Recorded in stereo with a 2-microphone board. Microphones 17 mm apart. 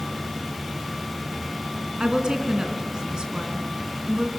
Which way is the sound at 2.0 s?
45° right (ahead or behind).